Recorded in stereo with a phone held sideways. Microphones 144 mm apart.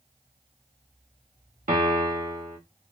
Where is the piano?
65° right (ahead or behind), 1.3 m.